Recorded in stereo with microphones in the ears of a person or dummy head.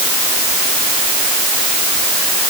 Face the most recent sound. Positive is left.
No sound to turn to.